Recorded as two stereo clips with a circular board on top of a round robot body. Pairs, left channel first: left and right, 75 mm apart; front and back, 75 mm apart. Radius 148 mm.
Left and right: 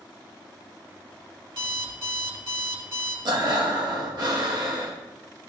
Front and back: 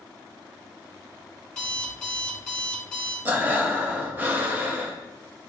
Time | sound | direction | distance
1.5 | an alarm clock | 80° right | 3 m
3.2 | breathing | 120° right | 1.6 m